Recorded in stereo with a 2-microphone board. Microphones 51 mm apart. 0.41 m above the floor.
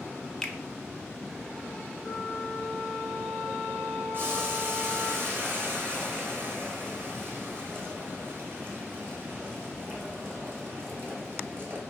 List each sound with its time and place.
0.4 s a finger snap: 10° left (ahead or behind), 0.5 m
2.0 s a flute: 30° left (ahead or behind), 0.8 m
4.1 s boiling: 45° right (ahead or behind), 1.6 m